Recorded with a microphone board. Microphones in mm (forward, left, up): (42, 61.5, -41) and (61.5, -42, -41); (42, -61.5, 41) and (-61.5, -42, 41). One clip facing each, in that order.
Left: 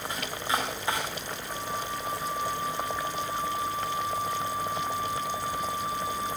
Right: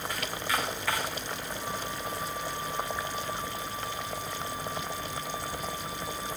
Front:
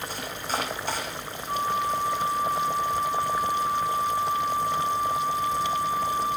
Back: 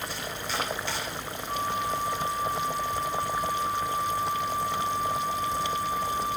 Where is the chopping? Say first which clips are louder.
Left 3 dB, front 3 dB; 35° left, 9 m.